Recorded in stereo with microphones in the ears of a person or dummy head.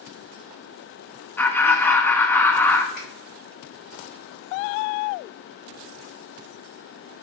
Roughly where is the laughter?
Centre.